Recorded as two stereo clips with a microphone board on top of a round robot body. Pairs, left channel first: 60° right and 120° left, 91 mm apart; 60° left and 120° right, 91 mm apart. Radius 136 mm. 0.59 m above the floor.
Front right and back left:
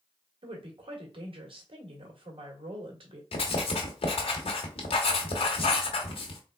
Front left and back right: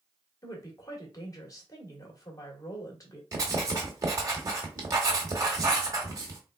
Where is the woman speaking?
110° left, 1.8 m.